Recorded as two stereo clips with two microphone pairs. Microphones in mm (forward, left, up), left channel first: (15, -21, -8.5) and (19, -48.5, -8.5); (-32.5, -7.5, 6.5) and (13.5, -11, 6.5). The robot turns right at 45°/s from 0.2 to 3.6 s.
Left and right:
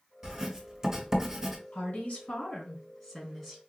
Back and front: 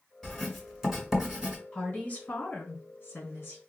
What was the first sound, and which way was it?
Writing, 110° right.